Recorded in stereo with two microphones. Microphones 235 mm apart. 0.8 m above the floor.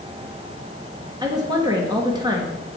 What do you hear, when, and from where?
1.2 s a woman speaking: 15° right (ahead or behind), 1.1 m